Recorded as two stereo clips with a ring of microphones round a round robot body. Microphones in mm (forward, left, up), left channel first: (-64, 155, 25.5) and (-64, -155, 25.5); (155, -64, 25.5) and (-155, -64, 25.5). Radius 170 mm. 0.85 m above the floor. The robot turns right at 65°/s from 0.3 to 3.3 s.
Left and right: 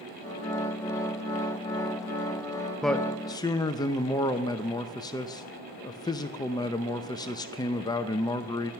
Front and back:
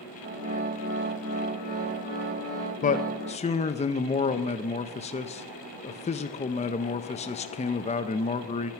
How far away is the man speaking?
About 0.5 m.